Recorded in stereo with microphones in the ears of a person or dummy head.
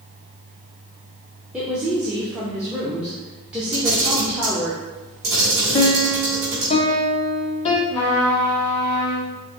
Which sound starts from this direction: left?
A piano, at 5.7 s.